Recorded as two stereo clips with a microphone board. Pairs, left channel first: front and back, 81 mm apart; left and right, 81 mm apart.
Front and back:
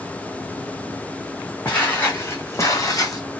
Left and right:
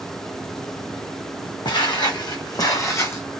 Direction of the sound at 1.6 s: 70° left.